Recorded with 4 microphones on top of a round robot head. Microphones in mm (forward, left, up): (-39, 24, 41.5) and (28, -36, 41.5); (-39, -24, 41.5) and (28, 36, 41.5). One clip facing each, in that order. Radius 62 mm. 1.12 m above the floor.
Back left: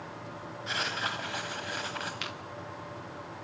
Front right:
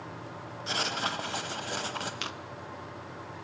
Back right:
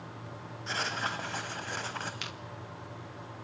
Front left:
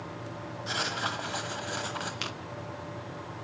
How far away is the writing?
About 1.0 m.